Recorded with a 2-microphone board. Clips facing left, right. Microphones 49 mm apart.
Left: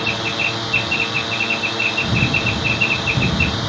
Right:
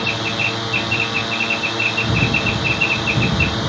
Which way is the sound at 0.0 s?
5° right (ahead or behind).